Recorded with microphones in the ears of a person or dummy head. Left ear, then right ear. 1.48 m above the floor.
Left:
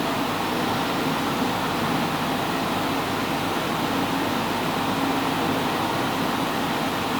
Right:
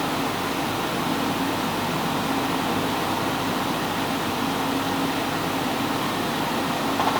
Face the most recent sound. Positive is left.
No sound to turn to.